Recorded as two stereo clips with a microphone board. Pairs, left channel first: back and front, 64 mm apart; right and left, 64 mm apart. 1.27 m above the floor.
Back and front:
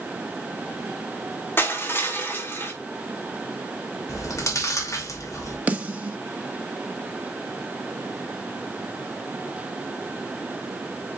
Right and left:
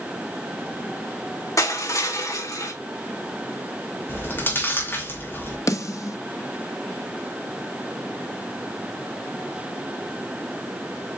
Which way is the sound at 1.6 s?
125° right.